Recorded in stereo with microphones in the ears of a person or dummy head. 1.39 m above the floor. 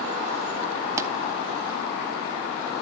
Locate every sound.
1.0 s a pop: 15° right (ahead or behind), 0.9 m